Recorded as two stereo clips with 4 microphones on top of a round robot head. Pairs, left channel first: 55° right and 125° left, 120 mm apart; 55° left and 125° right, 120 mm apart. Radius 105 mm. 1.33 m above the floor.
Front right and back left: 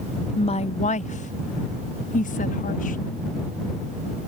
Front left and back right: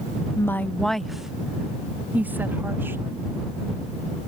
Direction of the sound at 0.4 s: 10° right.